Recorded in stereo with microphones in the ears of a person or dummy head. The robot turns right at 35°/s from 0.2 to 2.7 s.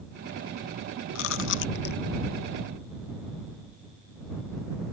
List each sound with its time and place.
1.1 s chewing: 75° left (ahead or behind); by 2.0 s 45° left (ahead or behind)